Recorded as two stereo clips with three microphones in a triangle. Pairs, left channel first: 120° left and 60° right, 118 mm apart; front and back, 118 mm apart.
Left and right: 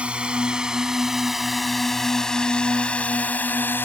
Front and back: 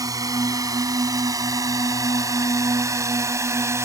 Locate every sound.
0.0 s a drone: 135° right; by 3.9 s 165° left